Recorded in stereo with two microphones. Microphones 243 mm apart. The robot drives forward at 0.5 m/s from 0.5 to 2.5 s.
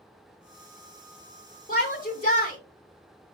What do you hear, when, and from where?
1.7 s a shout: 35° left (ahead or behind), 1.3 m